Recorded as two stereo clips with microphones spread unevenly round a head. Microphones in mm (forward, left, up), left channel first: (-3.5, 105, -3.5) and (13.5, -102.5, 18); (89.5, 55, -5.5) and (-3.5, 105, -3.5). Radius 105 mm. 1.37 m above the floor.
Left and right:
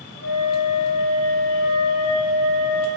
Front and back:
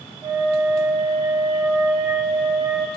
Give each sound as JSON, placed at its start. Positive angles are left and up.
{"t": 0.2, "sound": "a flute", "azimuth_deg": 80, "distance_m": 4.0}